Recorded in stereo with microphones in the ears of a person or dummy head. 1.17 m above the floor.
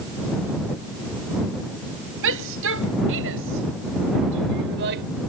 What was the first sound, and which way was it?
A shout, 75° right (ahead or behind).